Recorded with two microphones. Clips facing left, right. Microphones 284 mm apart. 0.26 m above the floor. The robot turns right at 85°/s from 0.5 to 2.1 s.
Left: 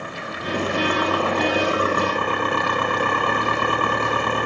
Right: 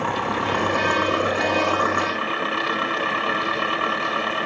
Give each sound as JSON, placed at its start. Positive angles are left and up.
{"t": 0.0, "sound": "an engine running", "azimuth_deg": -80}